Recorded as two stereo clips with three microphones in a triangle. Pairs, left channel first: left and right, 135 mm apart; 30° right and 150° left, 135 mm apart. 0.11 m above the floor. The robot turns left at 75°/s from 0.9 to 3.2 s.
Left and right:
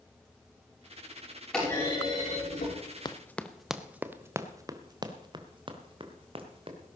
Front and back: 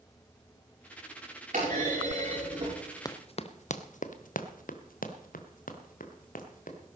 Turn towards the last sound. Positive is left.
turn(degrees=-45)